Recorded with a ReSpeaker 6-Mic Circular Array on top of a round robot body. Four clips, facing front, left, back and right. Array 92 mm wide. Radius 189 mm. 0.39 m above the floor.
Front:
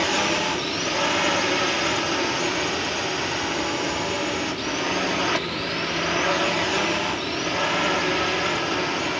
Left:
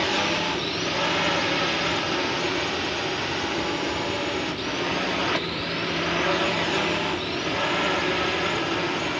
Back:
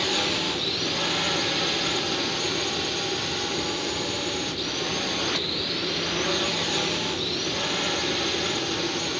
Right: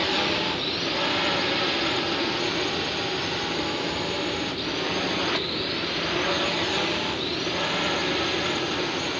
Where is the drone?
20° left; by 9.2 s 25° left.